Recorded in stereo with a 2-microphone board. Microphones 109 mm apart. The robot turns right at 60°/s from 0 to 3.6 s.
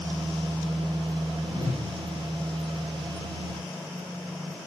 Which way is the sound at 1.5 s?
45° right (ahead or behind).